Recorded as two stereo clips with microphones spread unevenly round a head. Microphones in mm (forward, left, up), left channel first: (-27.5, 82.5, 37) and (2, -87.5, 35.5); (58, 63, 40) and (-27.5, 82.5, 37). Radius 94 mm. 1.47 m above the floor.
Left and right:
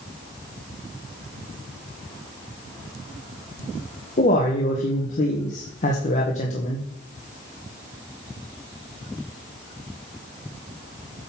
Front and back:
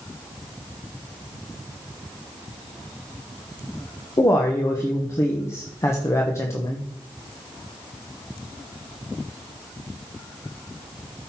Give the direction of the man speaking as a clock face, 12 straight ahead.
10 o'clock.